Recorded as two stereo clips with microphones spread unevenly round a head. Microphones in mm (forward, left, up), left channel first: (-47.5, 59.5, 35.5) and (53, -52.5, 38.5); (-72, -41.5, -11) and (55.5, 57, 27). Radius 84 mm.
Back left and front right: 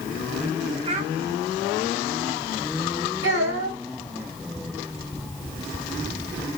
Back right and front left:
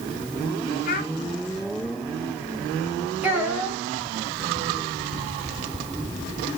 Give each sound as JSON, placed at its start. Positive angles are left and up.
{"t": 0.8, "sound": "a child speaking", "azimuth_deg": -100, "distance_m": 1.5}
{"t": 3.2, "sound": "a child speaking", "azimuth_deg": -45, "distance_m": 3.5}